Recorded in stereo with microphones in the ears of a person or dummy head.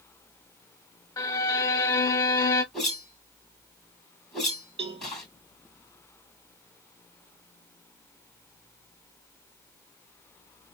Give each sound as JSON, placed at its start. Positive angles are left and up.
{"t": 1.2, "sound": "a violin", "side_deg": 20, "distance_m": 0.5}
{"t": 2.7, "sound": "a whoosh", "side_deg": 5, "distance_m": 2.5}
{"t": 4.8, "sound": "a cowbell", "side_deg": -30, "distance_m": 0.7}